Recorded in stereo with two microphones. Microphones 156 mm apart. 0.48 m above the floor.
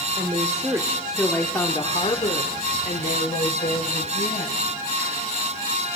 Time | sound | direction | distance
0.2 | a woman speaking | 35° right (ahead or behind) | 1.5 m